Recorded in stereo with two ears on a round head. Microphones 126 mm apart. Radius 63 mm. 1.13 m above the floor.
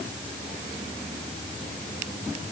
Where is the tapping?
I don't hear tapping.